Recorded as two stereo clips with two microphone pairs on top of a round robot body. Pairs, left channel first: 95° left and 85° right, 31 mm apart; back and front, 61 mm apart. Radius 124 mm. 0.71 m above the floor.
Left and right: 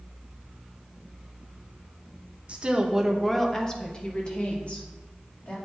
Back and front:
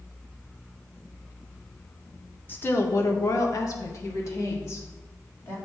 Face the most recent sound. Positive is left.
turn(degrees=130)